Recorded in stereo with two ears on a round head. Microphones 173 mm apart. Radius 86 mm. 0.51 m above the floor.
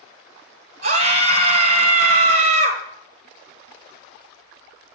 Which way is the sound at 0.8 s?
50° right (ahead or behind).